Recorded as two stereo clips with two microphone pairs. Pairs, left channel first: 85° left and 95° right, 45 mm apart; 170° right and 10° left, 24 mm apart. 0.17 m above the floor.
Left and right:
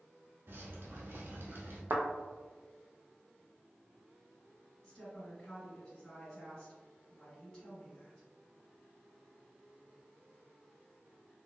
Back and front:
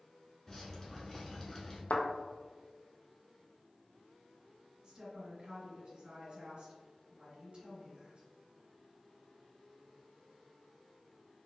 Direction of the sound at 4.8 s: 15° left.